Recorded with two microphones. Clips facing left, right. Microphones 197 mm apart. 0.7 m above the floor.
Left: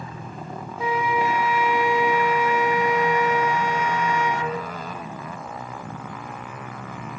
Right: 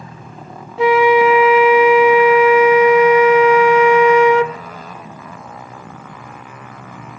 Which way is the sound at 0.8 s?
85° right.